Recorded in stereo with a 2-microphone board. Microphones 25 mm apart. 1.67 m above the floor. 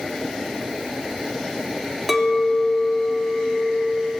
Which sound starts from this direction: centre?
A clink, at 2.1 s.